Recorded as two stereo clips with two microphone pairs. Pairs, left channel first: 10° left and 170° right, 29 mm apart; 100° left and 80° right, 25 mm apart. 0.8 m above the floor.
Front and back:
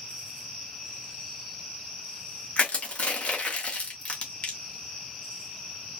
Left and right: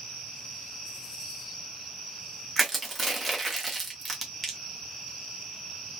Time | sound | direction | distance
2.6 | crushing | 10° left | 1.3 m